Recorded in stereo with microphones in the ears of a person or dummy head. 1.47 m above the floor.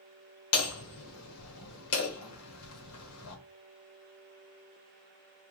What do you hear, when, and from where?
0.5 s hammering: 80° left, 1.1 m